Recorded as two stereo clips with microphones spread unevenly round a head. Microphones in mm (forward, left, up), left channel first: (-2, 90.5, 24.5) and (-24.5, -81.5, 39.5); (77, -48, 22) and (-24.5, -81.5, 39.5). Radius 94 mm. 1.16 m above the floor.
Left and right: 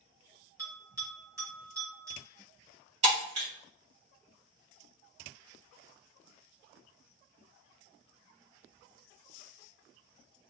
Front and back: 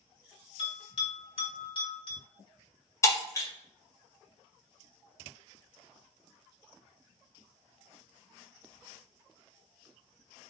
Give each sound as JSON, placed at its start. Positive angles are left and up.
{"t": 0.6, "sound": "a bell", "azimuth_deg": -25, "distance_m": 1.5}
{"t": 3.0, "sound": "breaking glass", "azimuth_deg": -45, "distance_m": 1.7}